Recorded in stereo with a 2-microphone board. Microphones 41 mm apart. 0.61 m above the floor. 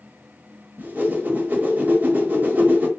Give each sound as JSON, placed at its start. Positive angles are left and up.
{"t": 0.8, "sound": "a whoosh", "side_deg": -45, "distance_m": 1.1}